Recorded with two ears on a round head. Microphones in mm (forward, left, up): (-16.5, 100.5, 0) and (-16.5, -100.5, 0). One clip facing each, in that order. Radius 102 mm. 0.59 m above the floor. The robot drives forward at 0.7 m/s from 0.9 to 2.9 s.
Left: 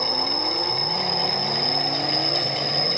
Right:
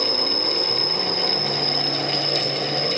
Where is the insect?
15° right (ahead or behind); by 3.0 s 10° right (ahead or behind).